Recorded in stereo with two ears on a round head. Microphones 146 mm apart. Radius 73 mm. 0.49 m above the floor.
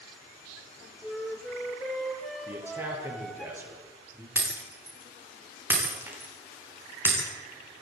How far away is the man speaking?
About 8 m.